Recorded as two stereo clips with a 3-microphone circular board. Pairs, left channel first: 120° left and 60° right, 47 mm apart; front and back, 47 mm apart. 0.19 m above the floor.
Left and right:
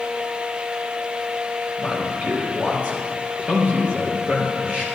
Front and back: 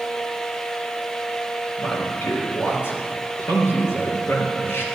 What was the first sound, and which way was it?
A man speaking, straight ahead.